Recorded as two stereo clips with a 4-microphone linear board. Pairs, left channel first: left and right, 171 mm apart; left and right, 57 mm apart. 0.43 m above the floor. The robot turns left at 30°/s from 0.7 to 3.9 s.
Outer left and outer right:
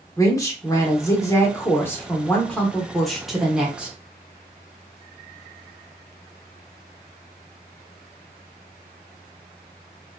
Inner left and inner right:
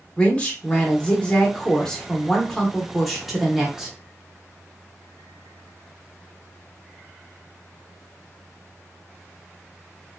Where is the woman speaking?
20° left (ahead or behind), 0.8 m; by 3.9 s 5° right (ahead or behind), 0.8 m.